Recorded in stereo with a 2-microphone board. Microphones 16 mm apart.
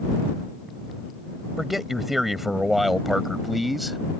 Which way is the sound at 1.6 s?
15° right (ahead or behind).